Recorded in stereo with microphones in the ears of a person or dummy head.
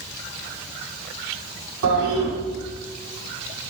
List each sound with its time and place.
1.8 s a toilet flushing: 80° right, 5.5 m